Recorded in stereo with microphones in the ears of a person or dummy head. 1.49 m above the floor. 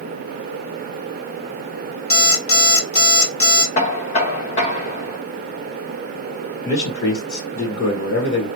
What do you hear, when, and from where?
2.1 s an alarm clock: 40° left (ahead or behind), 1.6 m
3.8 s knocking: 35° left (ahead or behind), 0.9 m
6.6 s a man speaking: 70° left (ahead or behind), 1.5 m